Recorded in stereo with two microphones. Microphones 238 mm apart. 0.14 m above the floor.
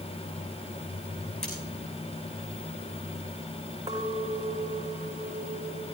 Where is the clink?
15° right (ahead or behind), 5.5 m.